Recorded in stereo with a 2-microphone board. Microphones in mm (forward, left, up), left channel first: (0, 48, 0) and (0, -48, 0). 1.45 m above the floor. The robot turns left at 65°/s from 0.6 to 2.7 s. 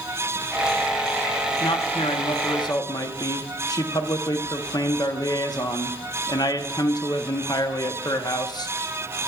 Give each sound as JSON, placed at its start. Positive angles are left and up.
{"t": 1.6, "sound": "a man speaking", "azimuth_deg": 120, "distance_m": 0.8}